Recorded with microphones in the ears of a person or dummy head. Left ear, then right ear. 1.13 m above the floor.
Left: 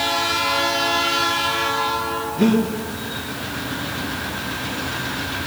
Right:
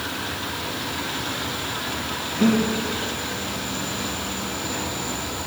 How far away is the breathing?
About 2 m.